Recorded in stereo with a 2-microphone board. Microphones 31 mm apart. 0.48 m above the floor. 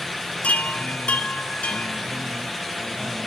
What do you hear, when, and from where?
0.4 s a chime: 45° left (ahead or behind), 1.0 m